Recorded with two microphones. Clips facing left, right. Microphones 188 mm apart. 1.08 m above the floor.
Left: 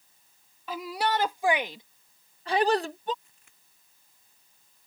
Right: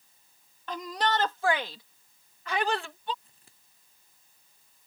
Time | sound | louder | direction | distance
0.7 | a shout | left 1 dB | 5° left (ahead or behind) | ?
3.2 | scissors | right 4 dB | 30° right (ahead or behind) | ?